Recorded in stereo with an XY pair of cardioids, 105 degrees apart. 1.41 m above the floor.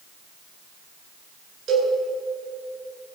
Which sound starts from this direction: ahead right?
A cowbell, at 1.7 s.